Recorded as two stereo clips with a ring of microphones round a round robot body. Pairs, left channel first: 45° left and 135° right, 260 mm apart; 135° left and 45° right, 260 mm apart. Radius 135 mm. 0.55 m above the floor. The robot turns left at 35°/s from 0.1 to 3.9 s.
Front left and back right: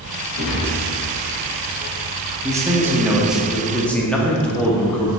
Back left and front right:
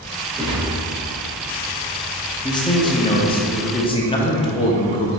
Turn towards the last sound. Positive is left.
turn(degrees=120)